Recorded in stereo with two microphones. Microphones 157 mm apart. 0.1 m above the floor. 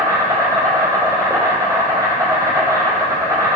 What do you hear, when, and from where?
0.0 s an insect: 20° right (ahead or behind), 1.8 m